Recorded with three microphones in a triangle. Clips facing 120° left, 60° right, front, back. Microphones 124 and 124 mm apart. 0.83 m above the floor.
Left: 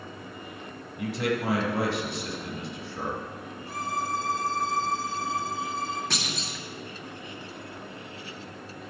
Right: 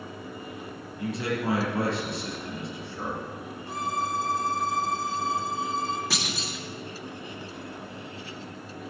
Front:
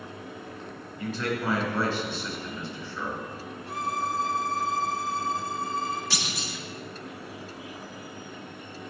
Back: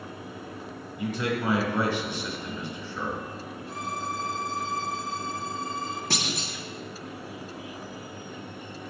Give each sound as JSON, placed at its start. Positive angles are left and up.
{"t": 1.0, "sound": "a man speaking", "azimuth_deg": 100, "distance_m": 3.5}
{"t": 3.7, "sound": "a violin", "azimuth_deg": 5, "distance_m": 1.6}
{"t": 6.1, "sound": "a clunk", "azimuth_deg": -145, "distance_m": 1.5}